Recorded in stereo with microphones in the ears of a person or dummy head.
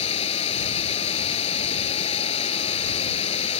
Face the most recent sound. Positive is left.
turn(degrees=30)  # may be behind; listen again after turning